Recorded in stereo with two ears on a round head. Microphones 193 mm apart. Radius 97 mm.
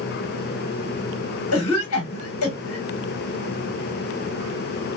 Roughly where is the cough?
Left.